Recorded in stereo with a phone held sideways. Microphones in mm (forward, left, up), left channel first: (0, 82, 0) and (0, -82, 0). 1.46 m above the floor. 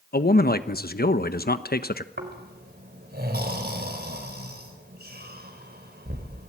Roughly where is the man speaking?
Left.